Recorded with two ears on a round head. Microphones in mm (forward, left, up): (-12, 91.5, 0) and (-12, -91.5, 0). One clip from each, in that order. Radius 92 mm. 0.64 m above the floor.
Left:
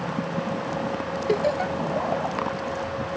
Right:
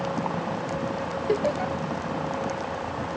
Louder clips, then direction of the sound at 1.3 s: Left 2 dB; 30° left (ahead or behind).